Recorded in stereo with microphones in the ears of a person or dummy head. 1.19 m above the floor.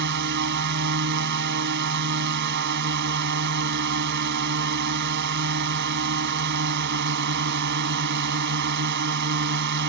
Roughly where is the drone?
Right.